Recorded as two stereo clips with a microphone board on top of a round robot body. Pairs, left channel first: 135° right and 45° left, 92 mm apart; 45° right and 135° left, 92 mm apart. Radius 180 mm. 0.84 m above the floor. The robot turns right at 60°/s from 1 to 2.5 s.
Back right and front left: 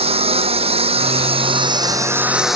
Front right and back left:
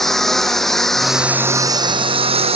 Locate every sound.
0.0 s a lawn mower: 40° left; by 2.6 s 130° left